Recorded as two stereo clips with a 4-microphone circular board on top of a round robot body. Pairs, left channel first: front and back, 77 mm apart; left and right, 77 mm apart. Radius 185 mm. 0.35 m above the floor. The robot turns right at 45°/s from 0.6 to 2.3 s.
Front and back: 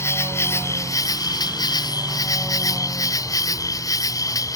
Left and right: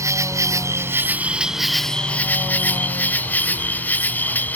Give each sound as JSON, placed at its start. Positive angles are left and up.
{"t": 0.0, "sound": "an insect", "azimuth_deg": -50}